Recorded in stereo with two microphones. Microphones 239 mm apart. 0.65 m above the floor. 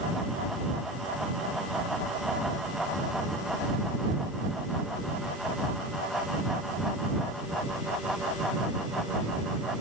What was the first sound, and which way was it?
Only background noise.